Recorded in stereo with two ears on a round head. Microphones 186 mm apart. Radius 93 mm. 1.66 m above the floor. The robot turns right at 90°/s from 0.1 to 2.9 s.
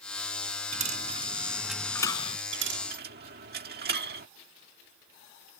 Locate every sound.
0.7 s a dropped coin: 35° right (ahead or behind); by 2.4 s 30° left (ahead or behind)
2.5 s a dropped coin: 60° right (ahead or behind); by 4.3 s 50° right (ahead or behind)